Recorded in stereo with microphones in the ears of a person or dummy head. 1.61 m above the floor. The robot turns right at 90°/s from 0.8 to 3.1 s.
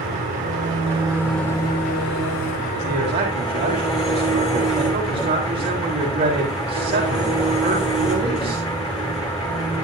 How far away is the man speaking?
About 3.5 m.